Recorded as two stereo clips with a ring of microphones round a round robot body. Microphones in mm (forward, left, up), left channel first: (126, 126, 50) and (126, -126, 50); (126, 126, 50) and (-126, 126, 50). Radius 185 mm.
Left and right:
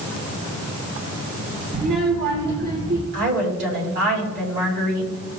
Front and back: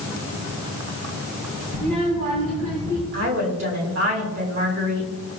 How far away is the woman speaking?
About 3 m.